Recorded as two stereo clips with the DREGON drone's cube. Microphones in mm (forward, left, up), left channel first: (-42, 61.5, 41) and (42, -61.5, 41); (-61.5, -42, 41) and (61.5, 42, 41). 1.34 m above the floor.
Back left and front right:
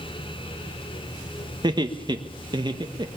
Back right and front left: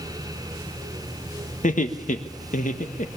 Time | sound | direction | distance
1.6 | laughter | 115° right | 1.6 m